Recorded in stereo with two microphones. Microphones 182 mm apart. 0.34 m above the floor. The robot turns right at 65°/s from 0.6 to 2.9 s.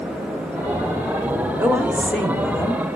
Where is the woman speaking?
15° right (ahead or behind), 1.5 m; by 2.8 s 25° left (ahead or behind), 1.5 m.